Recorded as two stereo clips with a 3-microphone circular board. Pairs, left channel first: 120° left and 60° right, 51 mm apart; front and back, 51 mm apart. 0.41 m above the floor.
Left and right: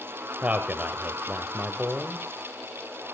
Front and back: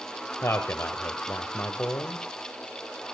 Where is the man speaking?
5° right, 1.4 m.